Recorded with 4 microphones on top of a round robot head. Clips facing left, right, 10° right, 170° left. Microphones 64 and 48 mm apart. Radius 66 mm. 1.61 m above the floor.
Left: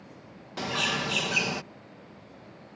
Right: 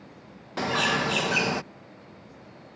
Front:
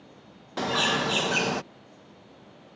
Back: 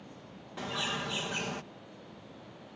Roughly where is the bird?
Ahead right.